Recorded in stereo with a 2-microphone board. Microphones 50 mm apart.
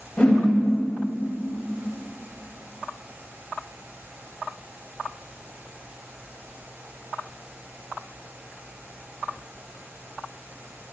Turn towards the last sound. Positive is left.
turn(degrees=20)  # may be behind; listen again after turning